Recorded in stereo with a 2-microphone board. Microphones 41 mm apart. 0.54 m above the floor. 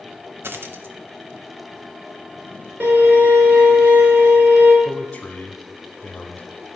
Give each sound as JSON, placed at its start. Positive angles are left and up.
{"t": 0.4, "sound": "a dropped coin", "side_deg": -65, "distance_m": 0.7}
{"t": 2.8, "sound": "a violin", "side_deg": -50, "distance_m": 2.0}
{"t": 4.8, "sound": "a man speaking", "side_deg": 20, "distance_m": 0.9}